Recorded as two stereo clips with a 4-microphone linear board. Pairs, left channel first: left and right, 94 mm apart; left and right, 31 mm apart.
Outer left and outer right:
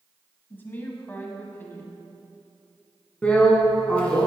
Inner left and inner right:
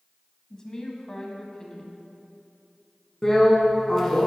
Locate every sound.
0.5 s a woman speaking: 20° left (ahead or behind), 1.0 m
3.2 s a drill: 15° left (ahead or behind), 1.3 m